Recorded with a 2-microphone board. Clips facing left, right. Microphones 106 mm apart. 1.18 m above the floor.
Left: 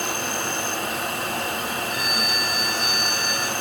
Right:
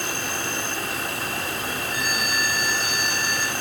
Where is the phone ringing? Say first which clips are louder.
Even; 85° left, 4.5 m.